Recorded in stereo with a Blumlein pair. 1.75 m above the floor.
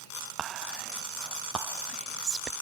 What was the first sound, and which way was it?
Whispering, 25° right.